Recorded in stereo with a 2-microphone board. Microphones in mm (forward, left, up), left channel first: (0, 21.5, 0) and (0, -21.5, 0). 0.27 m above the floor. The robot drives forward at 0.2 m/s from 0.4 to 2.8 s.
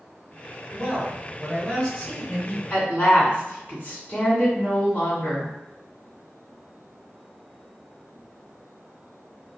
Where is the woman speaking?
50° left (ahead or behind), 2.0 m.